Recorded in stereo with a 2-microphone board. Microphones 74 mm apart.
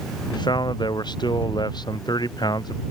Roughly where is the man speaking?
Left.